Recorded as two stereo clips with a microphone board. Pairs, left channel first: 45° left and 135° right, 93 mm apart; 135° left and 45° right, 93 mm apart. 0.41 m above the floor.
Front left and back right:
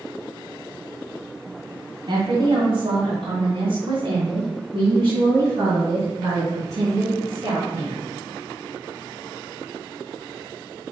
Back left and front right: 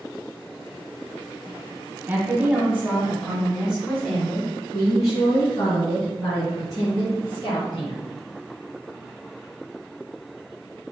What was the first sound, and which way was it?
A woman speaking, 115° right.